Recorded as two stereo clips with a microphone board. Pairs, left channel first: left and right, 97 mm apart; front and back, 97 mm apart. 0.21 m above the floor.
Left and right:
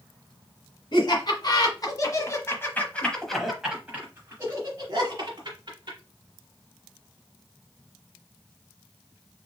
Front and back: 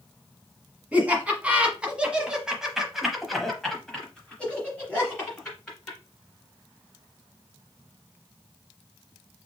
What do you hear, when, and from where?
0.9 s laughter: 110° left, 1.6 m; by 6.0 s 70° right, 1.6 m